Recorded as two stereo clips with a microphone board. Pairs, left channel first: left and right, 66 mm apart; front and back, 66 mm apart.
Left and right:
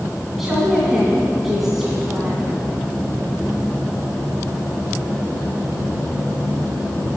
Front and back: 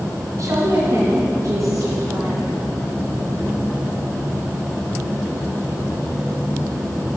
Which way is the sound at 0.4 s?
175° right.